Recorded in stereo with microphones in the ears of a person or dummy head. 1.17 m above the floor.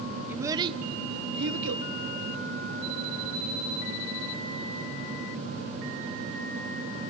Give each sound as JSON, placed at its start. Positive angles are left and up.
{"t": 0.3, "sound": "a child speaking", "side_deg": -10, "distance_m": 1.1}